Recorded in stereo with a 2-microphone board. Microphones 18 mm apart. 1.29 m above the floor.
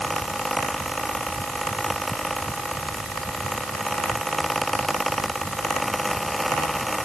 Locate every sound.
Only background noise.